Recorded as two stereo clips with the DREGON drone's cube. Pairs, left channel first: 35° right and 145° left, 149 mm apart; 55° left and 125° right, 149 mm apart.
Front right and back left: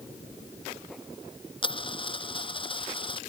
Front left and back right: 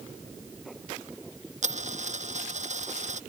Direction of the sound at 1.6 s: 90° right.